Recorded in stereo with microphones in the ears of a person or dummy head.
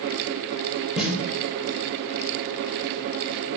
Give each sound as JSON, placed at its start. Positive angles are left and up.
{"t": 1.0, "sound": "a snare drum", "side_deg": -5, "distance_m": 0.6}